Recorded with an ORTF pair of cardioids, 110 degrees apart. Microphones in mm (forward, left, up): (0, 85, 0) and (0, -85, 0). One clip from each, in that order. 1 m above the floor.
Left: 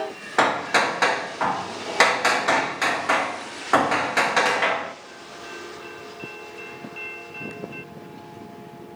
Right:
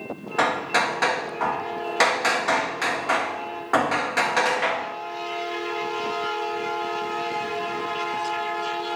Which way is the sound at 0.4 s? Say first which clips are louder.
Left 2 dB; 30° left.